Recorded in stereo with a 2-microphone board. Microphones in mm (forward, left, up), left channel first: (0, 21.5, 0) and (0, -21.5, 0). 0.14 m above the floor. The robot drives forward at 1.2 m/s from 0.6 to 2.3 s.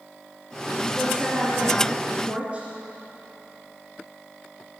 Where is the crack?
I don't hear a crack.